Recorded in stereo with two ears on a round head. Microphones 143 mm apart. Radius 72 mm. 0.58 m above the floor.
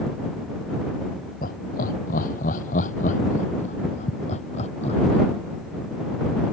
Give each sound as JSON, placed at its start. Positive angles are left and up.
{"t": 1.4, "sound": "laughter", "side_deg": 60}